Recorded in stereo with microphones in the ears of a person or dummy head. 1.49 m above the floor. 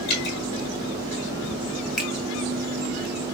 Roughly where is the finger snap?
Centre.